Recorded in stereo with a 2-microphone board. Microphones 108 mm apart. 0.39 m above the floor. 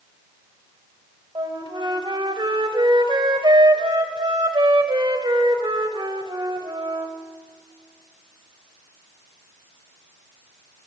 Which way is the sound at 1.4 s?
50° right (ahead or behind).